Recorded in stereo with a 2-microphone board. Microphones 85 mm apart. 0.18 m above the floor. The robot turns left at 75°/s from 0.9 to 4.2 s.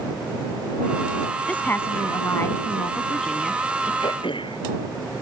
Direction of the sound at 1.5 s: 150° left.